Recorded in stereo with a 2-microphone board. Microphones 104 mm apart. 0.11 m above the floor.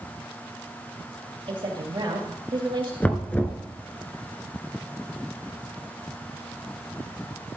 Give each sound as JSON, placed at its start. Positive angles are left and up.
{"t": 1.5, "sound": "a woman speaking", "side_deg": -55, "distance_m": 2.5}
{"t": 3.0, "sound": "knocking", "side_deg": 15, "distance_m": 0.8}